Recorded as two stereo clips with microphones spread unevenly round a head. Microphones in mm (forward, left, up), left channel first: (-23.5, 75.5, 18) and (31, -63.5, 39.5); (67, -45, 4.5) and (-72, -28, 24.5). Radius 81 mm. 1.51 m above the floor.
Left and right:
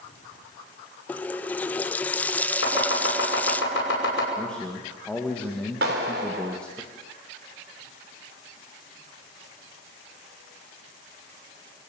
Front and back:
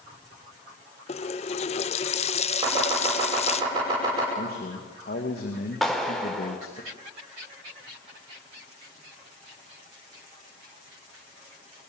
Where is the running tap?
25° left, 0.6 m.